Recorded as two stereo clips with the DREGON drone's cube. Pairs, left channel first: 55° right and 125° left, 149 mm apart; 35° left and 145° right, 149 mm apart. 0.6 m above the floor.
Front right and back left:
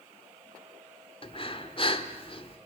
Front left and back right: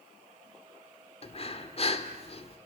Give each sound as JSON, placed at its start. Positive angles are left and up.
{"t": 1.2, "sound": "breathing", "azimuth_deg": -10, "distance_m": 1.6}